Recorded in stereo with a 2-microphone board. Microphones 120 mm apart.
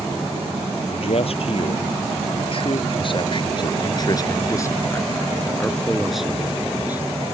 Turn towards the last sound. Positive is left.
turn(degrees=-15)  # may be behind; listen again after turning